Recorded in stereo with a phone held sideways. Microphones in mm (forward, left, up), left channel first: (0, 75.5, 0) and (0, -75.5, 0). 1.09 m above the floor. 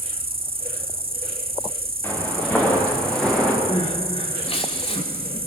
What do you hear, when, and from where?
0.0 s an insect: 80° right, 1.6 m
2.0 s footsteps: 10° left (ahead or behind), 7.5 m; by 3.6 s 5° left (ahead or behind), 7.5 m
3.7 s crying: 40° left (ahead or behind), 3.5 m